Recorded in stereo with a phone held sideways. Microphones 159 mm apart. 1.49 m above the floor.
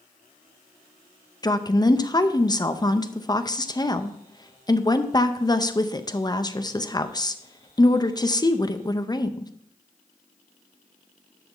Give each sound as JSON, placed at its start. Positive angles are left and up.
{"t": 1.4, "sound": "a woman speaking", "side_deg": 25, "distance_m": 0.5}